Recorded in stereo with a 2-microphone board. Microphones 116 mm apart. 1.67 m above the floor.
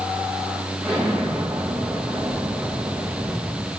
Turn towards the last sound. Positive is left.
turn(degrees=-5)  # may be behind; listen again after turning